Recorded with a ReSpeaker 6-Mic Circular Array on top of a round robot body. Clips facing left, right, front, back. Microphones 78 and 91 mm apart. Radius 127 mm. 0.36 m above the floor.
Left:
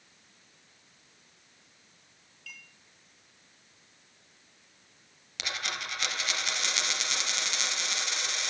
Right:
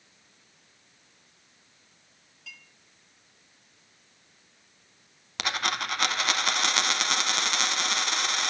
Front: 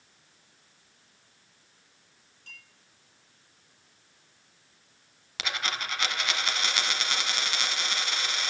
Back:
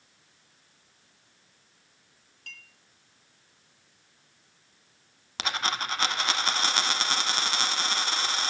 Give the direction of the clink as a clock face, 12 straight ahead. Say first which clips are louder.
Even, back 3 dB; 5 o'clock.